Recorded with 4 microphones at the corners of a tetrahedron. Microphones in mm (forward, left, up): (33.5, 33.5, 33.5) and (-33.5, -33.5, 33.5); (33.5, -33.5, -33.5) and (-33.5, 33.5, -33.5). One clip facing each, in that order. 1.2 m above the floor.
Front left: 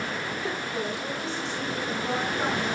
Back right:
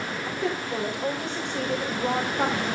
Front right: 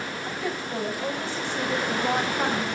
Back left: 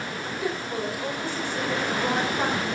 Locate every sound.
0.2 s a woman speaking: 150° right, 4 m